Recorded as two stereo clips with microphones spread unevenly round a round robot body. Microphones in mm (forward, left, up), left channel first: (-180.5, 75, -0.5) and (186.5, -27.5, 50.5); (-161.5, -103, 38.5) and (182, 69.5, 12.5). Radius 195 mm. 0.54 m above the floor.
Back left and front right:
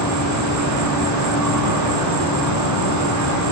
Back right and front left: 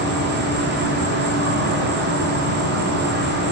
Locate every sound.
0.0 s an insect: 5° right, 1.0 m